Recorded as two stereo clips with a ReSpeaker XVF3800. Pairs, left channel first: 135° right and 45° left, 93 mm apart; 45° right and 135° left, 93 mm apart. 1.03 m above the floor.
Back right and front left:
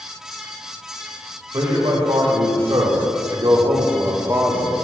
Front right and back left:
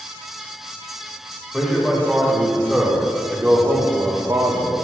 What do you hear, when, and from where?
1.5 s a man speaking: 40° left, 2 m; by 4.7 s 110° left, 0.8 m